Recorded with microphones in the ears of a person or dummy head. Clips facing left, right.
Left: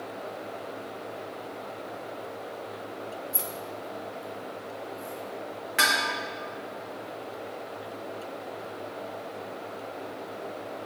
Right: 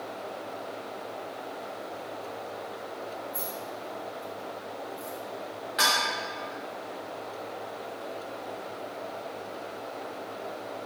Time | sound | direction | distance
3.3 | keys jangling | 50° left (ahead or behind) | 0.7 m
5.8 | dishes clattering | 35° left (ahead or behind) | 1.5 m